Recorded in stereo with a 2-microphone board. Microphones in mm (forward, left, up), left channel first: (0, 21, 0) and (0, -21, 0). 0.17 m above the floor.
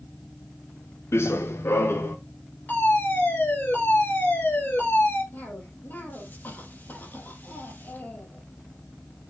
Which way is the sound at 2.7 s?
50° left (ahead or behind).